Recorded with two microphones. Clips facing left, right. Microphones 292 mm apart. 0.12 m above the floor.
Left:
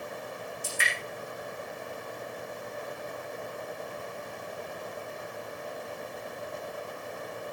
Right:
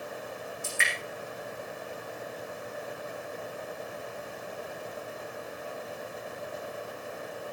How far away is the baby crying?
I don't hear a baby crying.